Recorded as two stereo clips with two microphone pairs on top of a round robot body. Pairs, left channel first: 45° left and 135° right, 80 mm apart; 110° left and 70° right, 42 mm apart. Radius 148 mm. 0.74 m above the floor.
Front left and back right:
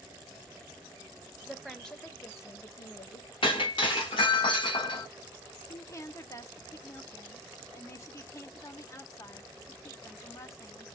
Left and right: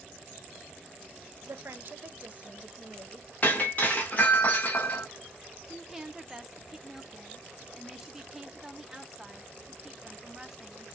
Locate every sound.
1.5 s a woman speaking: 60° right, 0.7 m; by 3.3 s 25° left, 1.0 m
3.4 s breaking glass: 55° left, 0.9 m
5.7 s a woman speaking: 25° left, 0.8 m